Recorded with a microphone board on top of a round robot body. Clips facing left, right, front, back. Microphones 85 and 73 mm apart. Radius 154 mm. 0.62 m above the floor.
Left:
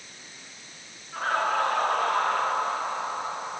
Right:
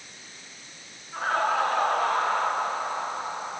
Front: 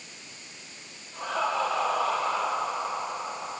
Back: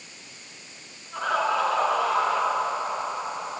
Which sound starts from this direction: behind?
Laughter, at 1.1 s.